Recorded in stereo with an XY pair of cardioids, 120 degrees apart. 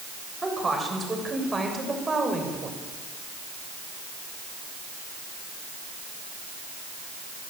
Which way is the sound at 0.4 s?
15° right.